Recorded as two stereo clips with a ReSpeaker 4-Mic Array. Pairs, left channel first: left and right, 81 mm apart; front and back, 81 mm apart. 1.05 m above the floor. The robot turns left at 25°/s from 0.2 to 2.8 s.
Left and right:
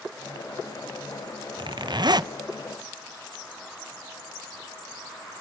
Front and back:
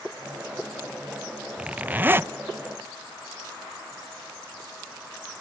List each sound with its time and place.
1.6 s a zipper: 105° right, 0.5 m; by 2.3 s 120° right, 0.5 m